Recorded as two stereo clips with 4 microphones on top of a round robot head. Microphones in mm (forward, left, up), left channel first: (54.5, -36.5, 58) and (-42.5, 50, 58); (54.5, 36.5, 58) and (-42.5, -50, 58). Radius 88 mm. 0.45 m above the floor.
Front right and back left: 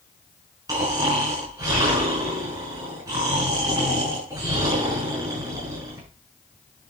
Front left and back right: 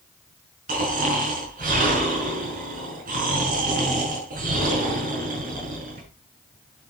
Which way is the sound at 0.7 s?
155° right.